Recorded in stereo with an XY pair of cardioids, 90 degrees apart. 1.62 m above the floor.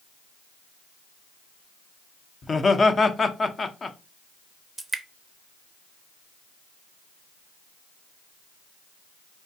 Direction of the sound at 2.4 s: 35° left.